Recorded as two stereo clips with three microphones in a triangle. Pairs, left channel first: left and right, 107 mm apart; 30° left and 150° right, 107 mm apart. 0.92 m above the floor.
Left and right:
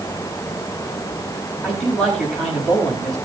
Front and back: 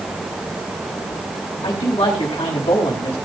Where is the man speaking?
5° left, 5 m.